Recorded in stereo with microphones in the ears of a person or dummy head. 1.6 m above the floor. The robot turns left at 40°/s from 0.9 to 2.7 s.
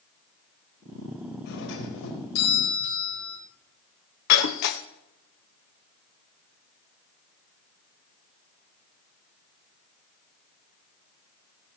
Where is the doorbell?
125° left, 5.5 m; by 3.4 s 75° left, 5.5 m.